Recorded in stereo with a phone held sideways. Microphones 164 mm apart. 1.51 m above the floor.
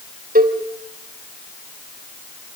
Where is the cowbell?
60° right (ahead or behind), 3 m.